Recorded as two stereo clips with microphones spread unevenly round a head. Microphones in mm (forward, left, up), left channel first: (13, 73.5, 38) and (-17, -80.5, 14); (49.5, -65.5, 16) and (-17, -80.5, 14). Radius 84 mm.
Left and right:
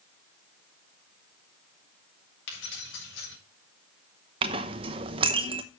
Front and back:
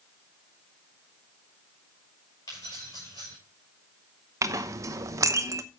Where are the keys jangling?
80° left, 5 m.